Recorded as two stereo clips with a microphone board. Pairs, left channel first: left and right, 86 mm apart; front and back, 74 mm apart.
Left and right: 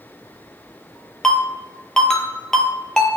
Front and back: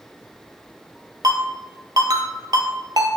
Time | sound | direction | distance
1.2 | a ringtone | 170° left | 0.9 m